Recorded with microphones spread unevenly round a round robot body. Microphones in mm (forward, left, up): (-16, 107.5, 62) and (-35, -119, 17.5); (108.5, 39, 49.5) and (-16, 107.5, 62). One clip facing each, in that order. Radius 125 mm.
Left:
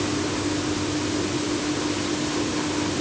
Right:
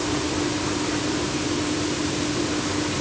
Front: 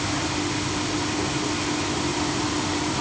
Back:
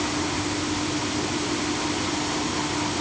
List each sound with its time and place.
Only background noise.